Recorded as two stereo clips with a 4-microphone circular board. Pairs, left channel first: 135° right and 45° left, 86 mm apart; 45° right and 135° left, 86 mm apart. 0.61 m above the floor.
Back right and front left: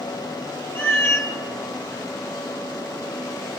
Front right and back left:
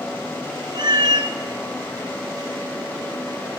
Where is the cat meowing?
160° left, 1.3 m.